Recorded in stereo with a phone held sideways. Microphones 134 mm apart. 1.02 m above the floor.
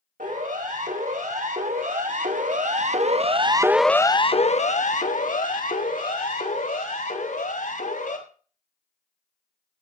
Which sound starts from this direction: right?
A siren, at 0.2 s.